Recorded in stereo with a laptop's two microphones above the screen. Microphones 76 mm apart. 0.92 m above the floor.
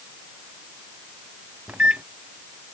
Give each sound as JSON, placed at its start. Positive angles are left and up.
{"t": 1.7, "sound": "a microwave", "side_deg": -15}